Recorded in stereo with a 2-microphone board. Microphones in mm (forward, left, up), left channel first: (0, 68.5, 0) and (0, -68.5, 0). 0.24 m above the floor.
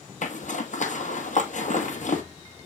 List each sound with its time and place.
0.2 s a zipper: 65° left (ahead or behind), 1.5 m